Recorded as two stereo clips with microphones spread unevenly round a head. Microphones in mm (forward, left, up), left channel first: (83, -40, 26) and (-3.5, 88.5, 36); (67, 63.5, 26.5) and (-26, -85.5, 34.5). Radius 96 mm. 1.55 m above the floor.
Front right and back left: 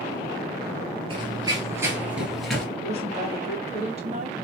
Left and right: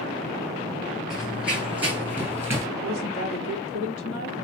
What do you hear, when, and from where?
1.1 s running footsteps: 155° left, 1.8 m; by 2.7 s 140° right, 1.5 m
2.8 s a woman speaking: 75° left, 2.5 m